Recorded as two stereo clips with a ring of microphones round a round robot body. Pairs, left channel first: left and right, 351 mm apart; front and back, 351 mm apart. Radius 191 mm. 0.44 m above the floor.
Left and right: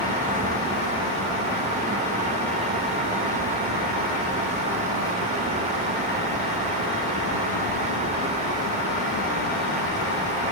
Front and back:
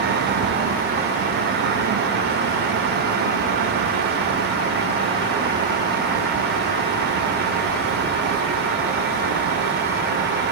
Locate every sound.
Only background noise.